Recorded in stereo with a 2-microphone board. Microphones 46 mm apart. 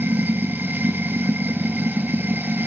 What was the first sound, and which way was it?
Running water, 45° right (ahead or behind).